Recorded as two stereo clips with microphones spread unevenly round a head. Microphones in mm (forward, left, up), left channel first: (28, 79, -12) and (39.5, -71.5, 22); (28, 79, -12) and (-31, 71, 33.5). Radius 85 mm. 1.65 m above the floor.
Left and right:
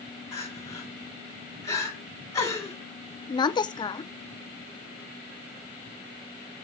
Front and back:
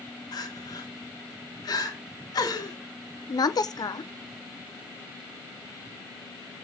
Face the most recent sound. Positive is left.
turn(degrees=30)